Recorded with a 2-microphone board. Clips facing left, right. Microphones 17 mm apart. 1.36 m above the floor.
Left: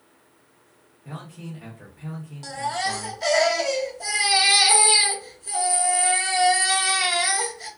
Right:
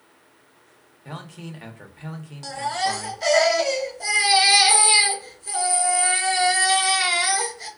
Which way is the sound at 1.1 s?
55° right (ahead or behind).